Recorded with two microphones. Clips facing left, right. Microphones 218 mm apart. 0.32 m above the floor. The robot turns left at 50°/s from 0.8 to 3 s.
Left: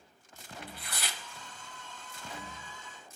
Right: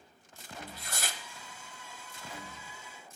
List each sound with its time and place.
0.6 s tearing paper: 45° right (ahead or behind), 0.7 m; by 1.2 s 50° right (ahead or behind), 0.7 m